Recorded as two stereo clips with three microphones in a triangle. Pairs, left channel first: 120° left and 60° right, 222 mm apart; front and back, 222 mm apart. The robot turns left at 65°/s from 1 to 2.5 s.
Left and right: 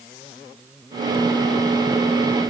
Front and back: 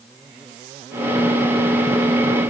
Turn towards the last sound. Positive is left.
No sound to turn to.